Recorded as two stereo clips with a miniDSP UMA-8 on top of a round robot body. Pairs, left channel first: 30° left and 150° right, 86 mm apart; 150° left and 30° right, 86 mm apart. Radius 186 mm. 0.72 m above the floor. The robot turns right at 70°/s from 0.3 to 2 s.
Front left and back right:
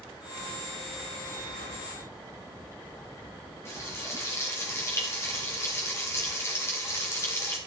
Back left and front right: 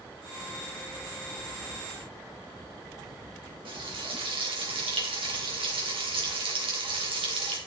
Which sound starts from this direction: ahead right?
Frying, at 3.6 s.